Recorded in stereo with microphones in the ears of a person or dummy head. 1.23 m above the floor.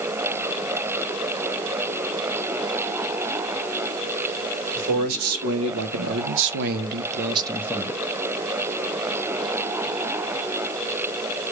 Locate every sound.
4.8 s a man speaking: 80° right, 2 m; by 8.1 s 15° left (ahead or behind), 0.8 m